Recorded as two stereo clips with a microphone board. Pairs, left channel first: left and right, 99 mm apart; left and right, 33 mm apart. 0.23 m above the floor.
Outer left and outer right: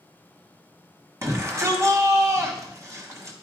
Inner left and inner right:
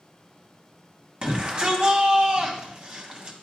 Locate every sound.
1.2 s a shout: 35° right (ahead or behind), 1.4 m